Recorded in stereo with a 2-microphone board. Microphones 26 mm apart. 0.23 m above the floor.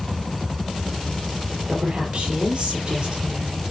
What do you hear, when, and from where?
1.7 s a woman speaking: 35° right (ahead or behind), 6.5 m; by 3.6 s 30° right (ahead or behind), 5.5 m